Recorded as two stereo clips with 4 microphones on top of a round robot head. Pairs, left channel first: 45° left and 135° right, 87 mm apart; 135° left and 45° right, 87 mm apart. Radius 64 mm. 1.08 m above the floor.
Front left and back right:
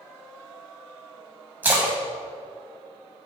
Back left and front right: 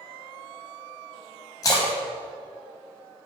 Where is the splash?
165° left, 1.0 m.